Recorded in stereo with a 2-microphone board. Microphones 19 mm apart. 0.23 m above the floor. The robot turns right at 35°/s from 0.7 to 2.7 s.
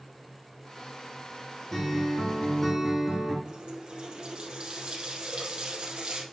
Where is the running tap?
55° right (ahead or behind), 4.5 m.